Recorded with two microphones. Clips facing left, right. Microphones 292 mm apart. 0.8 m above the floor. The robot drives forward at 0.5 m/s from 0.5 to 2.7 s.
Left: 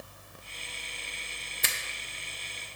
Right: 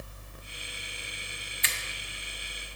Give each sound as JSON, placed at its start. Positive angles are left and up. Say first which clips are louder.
{"t": 1.6, "sound": "a finger snap", "louder": "left 3 dB", "side_deg": 55, "distance_m": 0.5}